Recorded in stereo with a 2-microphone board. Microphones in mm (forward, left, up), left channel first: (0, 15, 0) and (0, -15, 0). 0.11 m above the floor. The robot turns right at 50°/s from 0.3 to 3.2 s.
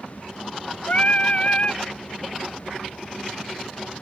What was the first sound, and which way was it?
Singing, 85° left.